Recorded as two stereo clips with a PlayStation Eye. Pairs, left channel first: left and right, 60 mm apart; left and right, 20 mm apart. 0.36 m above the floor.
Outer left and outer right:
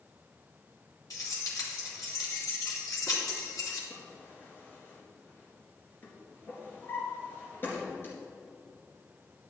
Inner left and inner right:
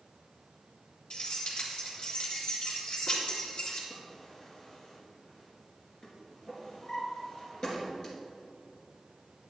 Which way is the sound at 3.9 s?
40° left (ahead or behind).